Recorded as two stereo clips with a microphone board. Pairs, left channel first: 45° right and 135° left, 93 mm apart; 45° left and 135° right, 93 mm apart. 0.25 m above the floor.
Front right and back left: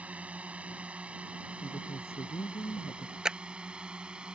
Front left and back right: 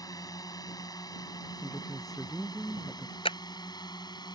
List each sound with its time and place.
0.0 s a drone: 65° left; by 4.4 s 60° left
1.6 s a woman speaking: 40° right
3.2 s a clap: 55° left